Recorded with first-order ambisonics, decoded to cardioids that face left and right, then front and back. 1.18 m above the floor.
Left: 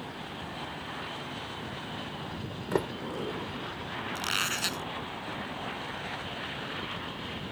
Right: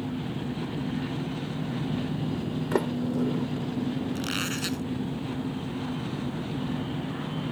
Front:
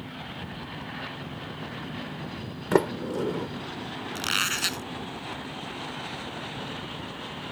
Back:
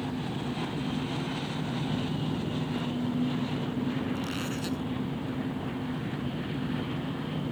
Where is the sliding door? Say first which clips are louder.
Right 3 dB, front 14 dB; 10° right.